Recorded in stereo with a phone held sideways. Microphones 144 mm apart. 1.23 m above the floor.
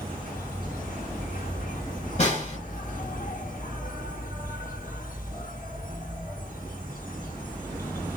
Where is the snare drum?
50° left (ahead or behind), 1.9 m.